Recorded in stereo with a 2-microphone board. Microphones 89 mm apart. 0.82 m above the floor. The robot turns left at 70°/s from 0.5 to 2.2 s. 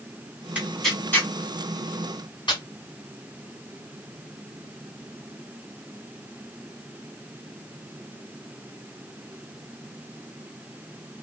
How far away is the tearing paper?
About 1.2 m.